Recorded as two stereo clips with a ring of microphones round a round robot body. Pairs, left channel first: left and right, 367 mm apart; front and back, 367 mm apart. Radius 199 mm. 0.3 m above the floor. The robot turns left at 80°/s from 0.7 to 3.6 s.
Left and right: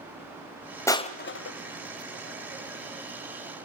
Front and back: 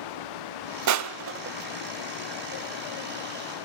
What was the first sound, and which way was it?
Crushing, 170° left.